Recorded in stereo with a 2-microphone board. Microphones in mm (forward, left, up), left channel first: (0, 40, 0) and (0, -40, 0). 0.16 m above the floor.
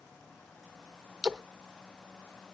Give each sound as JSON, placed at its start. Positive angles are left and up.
{"t": 1.2, "sound": "a splash", "side_deg": 0, "distance_m": 0.9}